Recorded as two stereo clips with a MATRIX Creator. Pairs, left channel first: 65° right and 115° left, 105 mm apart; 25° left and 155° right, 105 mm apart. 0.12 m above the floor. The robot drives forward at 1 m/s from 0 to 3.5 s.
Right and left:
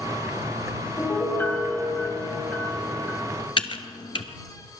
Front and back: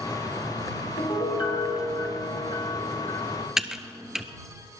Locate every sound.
1.0 s a piano: straight ahead, 3.5 m
3.6 s typing on a keyboard: 75° right, 0.7 m